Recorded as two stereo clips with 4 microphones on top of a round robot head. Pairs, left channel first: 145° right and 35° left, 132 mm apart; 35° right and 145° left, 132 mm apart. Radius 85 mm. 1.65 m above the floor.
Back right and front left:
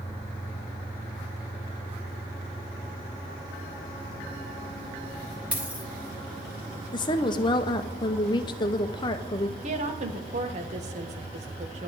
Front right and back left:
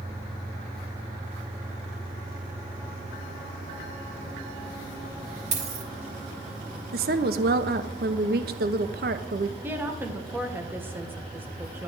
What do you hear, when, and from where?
5.5 s a dropped coin: 110° left, 1.8 m
6.9 s a woman speaking: 155° left, 0.8 m
9.6 s a woman speaking: 70° left, 1.5 m